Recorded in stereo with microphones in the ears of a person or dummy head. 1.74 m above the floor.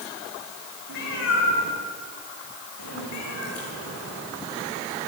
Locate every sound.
0.9 s a cat meowing: 70° left (ahead or behind), 9 m; by 5.1 s 60° left (ahead or behind), 12 m